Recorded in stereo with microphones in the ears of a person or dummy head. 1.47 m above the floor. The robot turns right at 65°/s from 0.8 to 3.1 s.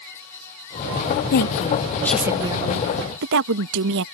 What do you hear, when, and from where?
1.3 s a woman speaking: 125° left; by 4.0 s 115° right